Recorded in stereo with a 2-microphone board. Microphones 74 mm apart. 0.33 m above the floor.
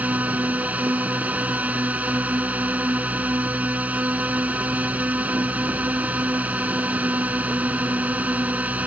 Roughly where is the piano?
I don't hear a piano.